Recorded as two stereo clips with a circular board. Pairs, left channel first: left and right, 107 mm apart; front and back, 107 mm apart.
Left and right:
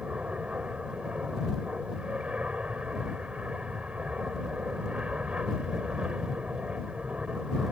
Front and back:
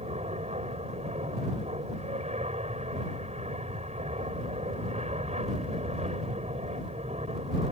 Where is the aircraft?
170° right.